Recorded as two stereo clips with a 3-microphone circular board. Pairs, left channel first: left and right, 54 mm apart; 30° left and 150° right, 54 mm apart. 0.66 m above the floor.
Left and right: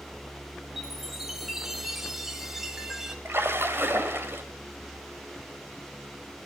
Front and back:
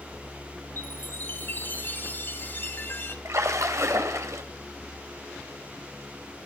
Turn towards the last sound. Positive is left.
turn(degrees=-135)